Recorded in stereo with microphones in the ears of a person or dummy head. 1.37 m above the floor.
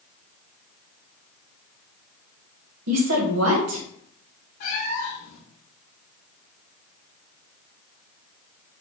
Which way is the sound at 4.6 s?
50° left (ahead or behind).